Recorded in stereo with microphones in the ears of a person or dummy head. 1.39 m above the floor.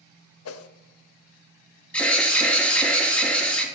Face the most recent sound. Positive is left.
turn(degrees=5)  # may be behind; listen again after turning